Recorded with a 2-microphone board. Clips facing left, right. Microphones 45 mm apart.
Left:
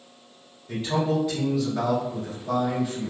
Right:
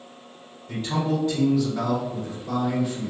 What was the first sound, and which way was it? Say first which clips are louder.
A man speaking: left 1 dB; 5° left (ahead or behind).